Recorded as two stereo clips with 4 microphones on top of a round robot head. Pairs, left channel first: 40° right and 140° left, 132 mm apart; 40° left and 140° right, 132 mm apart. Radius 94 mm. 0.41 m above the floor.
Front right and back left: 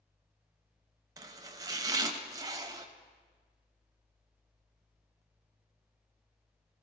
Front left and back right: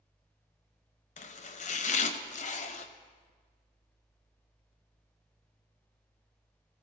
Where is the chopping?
75° left, 0.8 m.